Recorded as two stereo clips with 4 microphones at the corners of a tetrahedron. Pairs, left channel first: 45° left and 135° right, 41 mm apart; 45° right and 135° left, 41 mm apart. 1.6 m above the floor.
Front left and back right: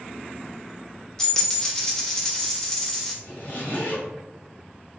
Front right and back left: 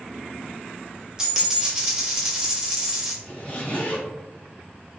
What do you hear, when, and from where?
1.2 s a dropped coin: 85° left, 0.9 m
3.2 s a zipper: 10° left, 1.6 m